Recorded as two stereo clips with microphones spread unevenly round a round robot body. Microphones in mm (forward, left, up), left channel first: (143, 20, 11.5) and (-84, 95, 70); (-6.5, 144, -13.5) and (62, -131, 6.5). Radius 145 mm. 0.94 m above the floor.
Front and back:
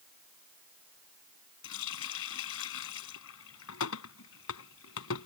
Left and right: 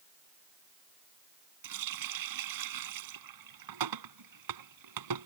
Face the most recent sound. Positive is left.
turn(degrees=-65)